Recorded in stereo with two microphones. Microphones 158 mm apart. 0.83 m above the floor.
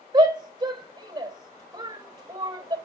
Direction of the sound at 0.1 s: 30° right (ahead or behind).